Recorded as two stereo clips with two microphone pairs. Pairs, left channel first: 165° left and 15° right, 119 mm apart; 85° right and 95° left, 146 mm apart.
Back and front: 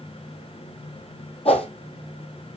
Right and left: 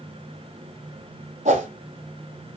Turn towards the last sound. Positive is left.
turn(degrees=130)